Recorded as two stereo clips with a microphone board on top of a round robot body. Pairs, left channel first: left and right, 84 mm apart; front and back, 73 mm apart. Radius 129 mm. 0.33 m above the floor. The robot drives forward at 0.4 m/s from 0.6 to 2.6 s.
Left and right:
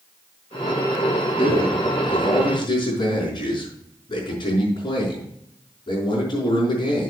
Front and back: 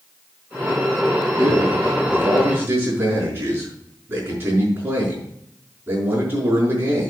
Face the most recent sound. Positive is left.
turn(degrees=125)